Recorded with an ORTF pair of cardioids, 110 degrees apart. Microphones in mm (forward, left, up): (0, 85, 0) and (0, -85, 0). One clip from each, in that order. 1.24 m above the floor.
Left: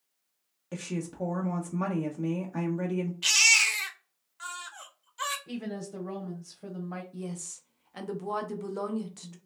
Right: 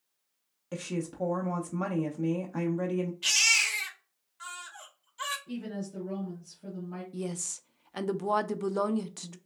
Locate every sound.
0.7 s a woman speaking: 5° right, 0.5 m
3.2 s a baby crying: 20° left, 0.8 m
5.5 s a woman speaking: 60° left, 1.2 m
7.1 s a woman speaking: 30° right, 0.5 m